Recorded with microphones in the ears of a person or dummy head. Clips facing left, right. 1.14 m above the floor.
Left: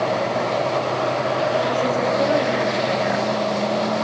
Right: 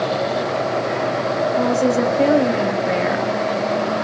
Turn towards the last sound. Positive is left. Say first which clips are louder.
# right 4 dB
turn(degrees=-55)  # may be behind; listen again after turning